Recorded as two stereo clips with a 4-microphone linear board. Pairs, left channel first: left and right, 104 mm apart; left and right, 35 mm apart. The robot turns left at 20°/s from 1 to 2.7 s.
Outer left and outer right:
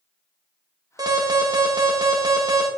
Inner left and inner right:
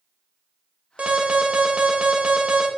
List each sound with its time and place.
1.0 s an alarm: 75° right, 1.7 m; by 2.7 s 110° right, 1.7 m